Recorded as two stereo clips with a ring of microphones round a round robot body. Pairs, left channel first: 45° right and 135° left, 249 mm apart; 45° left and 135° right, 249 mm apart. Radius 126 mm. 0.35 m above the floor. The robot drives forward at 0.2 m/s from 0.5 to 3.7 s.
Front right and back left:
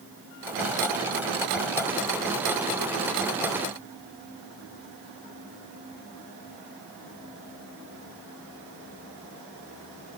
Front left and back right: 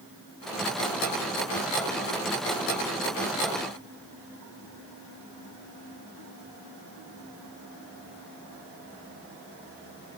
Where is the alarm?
No alarm in this recording.